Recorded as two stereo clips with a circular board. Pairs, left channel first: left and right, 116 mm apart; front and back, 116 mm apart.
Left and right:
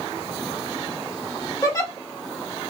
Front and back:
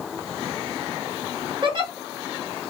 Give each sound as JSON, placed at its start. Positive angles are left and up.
{"t": 1.6, "sound": "a giggle", "azimuth_deg": 145, "distance_m": 0.9}